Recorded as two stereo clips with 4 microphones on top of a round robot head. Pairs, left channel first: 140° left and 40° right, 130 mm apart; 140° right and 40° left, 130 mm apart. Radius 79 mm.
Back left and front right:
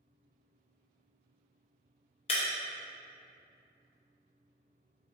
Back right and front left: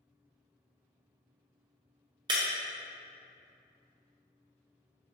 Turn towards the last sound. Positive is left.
turn(degrees=95)